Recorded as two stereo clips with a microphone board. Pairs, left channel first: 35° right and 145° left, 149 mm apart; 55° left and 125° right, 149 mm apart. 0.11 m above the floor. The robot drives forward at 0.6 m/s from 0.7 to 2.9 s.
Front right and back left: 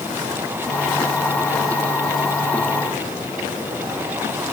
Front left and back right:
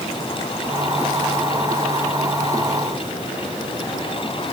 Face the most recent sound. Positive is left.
No sound to turn to.